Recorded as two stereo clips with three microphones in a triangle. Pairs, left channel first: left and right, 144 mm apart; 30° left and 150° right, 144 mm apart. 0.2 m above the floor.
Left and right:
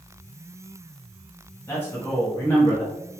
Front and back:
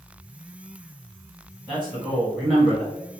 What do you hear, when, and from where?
1.7 s a man speaking: 130° left, 1.2 m